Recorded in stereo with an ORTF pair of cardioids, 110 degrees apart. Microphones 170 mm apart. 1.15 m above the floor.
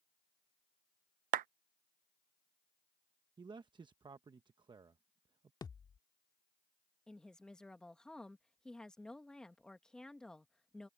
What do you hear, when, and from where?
1.3 s a clap: 55° right
3.4 s a man speaking: 25° right
5.6 s a thud: 25° left
7.1 s a woman speaking: 5° left